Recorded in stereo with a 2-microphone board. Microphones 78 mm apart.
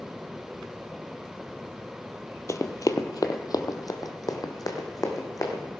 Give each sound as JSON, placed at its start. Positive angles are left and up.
{"t": 2.5, "sound": "running footsteps", "side_deg": 40, "distance_m": 0.8}